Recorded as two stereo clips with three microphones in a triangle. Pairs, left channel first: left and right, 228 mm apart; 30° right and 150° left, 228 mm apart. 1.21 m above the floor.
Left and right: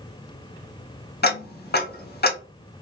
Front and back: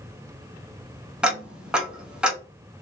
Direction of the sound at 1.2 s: 65° left.